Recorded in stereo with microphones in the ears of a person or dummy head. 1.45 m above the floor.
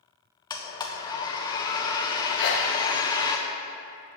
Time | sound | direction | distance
0.5 | a blender | 20° left (ahead or behind) | 0.5 m
2.4 | a sneeze | 60° left (ahead or behind) | 0.8 m